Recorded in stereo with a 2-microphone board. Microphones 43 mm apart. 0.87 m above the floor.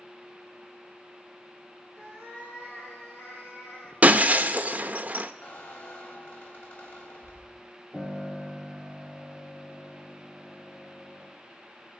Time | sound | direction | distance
1.9 | a cat meowing | 75° left (ahead or behind) | 6 m
4.0 | breaking glass | 35° right (ahead or behind) | 0.7 m
5.4 | a squeak | 50° left (ahead or behind) | 1.6 m
7.9 | a piano | 15° left (ahead or behind) | 3.5 m